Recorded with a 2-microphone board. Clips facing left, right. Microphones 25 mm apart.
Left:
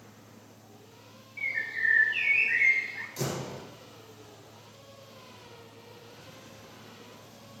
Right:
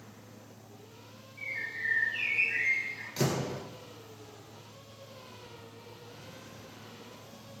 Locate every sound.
1.4 s a bird: 60° left (ahead or behind), 3.5 m
3.2 s a door slam: 35° right (ahead or behind), 1.9 m